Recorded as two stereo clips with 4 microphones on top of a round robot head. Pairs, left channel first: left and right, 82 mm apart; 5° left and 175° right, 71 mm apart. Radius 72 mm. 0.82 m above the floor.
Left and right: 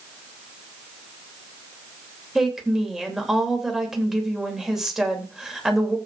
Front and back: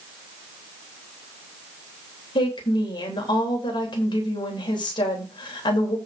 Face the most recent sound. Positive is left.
turn(degrees=-5)